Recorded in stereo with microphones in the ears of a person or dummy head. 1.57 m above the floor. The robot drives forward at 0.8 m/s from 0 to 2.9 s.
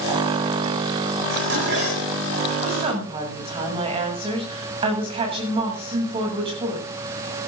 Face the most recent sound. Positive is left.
turn(degrees=-30)  # may be behind; listen again after turning